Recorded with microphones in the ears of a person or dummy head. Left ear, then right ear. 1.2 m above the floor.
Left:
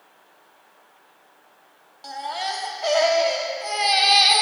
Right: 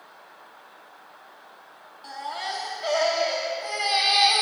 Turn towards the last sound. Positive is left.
turn(degrees=10)  # may be behind; listen again after turning